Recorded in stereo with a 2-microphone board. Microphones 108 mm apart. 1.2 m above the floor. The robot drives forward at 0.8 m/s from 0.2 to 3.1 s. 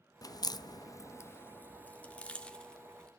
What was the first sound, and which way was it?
A crack, 35° left (ahead or behind).